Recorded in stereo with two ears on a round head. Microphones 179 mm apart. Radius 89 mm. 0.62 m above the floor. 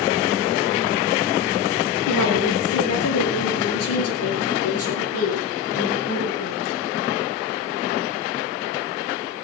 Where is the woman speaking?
80° left, 7 m.